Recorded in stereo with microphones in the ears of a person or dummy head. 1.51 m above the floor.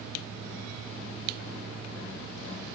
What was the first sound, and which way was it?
Only background noise.